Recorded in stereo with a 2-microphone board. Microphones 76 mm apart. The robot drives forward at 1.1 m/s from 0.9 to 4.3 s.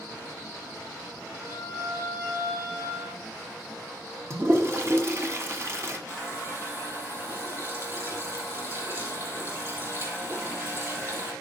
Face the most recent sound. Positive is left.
turn(degrees=-35)  # may be behind; listen again after turning